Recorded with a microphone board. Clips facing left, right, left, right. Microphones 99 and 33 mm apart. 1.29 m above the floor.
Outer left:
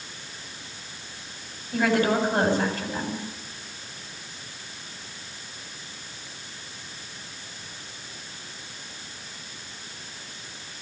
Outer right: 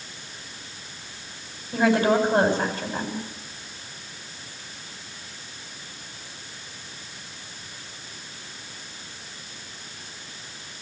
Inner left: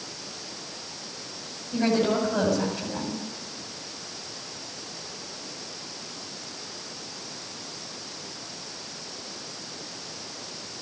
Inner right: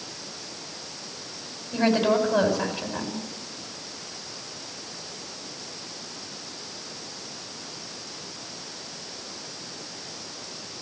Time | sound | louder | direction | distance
1.7 | a woman speaking | outer right 3 dB, inner right 2 dB | 20° right (ahead or behind) | 8 m